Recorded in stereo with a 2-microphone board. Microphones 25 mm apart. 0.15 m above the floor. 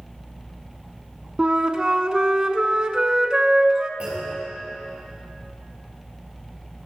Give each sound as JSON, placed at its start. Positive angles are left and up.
{"t": 1.4, "sound": "a flute", "side_deg": -35, "distance_m": 0.5}
{"t": 4.0, "sound": "a clunk", "side_deg": -55, "distance_m": 4.5}